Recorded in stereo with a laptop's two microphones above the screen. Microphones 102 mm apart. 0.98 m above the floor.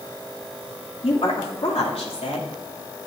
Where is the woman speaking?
75° left (ahead or behind), 2.5 m.